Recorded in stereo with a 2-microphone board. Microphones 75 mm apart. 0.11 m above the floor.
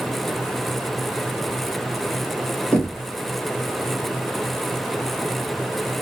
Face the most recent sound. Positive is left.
turn(degrees=15)  # may be behind; listen again after turning